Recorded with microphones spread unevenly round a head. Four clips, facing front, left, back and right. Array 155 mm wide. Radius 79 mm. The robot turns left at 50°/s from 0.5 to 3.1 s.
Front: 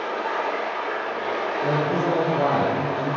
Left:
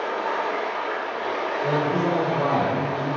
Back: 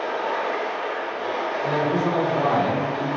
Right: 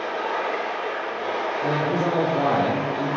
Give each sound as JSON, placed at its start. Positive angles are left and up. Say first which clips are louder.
{"t": 0.0, "sound": "running water", "louder": "left 1 dB, back 1 dB", "azimuth_deg": 85, "distance_m": 1.6}
{"t": 1.6, "sound": "a man speaking", "louder": "left 1 dB, even", "azimuth_deg": -55, "distance_m": 0.7}